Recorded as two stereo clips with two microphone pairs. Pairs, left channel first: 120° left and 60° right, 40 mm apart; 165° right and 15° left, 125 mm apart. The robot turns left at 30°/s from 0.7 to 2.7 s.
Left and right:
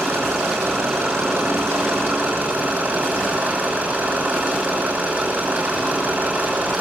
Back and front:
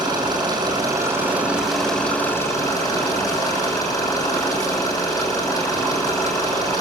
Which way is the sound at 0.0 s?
45° right.